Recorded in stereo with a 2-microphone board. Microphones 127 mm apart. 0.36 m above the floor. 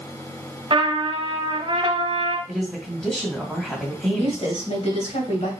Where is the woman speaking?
55° left (ahead or behind), 2.5 m.